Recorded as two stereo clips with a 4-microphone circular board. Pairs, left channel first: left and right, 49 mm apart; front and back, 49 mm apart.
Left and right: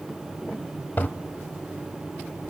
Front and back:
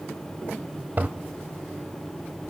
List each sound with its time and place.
1.0 s a toilet flushing: 130° left, 0.6 m